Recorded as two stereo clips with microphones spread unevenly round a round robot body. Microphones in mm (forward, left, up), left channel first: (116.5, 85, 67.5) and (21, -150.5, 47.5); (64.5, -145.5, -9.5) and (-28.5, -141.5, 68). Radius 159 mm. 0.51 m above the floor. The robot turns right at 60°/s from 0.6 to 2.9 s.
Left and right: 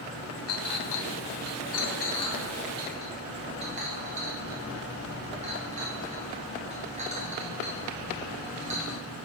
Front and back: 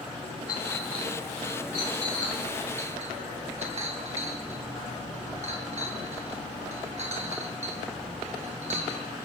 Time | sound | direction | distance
0.5 | a clink | 45° left | 3 m